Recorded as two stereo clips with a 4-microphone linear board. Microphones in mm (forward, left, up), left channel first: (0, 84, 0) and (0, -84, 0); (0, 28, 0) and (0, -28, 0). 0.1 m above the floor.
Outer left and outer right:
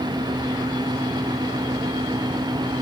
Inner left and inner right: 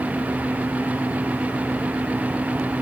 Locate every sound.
Only background noise.